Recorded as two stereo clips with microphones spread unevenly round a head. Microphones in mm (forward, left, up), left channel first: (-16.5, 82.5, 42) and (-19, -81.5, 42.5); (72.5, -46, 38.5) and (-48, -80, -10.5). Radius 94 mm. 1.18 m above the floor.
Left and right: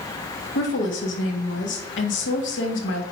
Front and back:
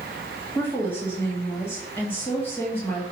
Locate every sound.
0.6 s a woman speaking: 95° left, 1.8 m